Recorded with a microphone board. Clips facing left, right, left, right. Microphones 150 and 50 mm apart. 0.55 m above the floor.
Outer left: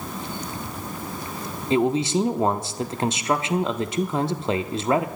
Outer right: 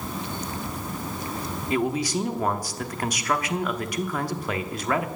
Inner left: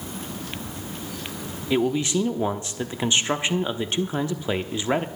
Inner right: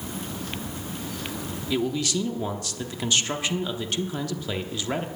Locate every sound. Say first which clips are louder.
1.7 s a man speaking: outer left 5 dB, inner left 4 dB; 25° left (ahead or behind), 0.8 m